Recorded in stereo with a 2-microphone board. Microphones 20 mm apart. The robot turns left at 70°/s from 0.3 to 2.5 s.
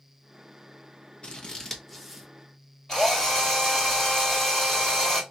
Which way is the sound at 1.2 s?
50° left (ahead or behind).